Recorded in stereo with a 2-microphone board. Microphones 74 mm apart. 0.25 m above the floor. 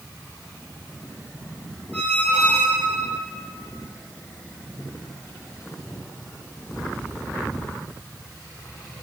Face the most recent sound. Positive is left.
turn(degrees=20)  # may be behind; listen again after turning